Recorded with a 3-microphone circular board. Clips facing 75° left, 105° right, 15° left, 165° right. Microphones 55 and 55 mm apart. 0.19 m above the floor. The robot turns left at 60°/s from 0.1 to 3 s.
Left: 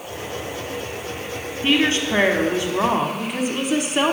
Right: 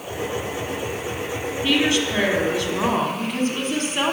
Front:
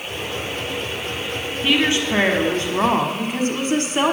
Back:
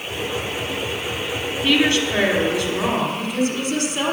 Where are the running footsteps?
No running footsteps in this recording.